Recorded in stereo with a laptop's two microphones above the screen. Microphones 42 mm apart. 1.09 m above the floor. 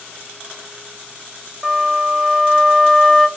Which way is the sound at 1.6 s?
15° right (ahead or behind).